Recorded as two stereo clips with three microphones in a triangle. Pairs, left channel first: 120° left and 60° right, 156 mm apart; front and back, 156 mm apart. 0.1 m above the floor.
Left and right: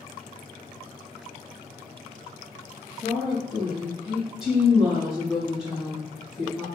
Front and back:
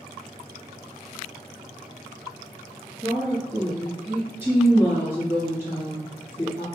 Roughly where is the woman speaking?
Behind right.